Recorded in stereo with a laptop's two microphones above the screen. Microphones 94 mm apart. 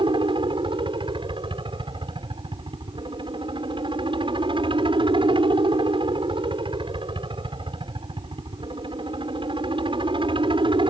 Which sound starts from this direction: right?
A helicopter, at 0.0 s.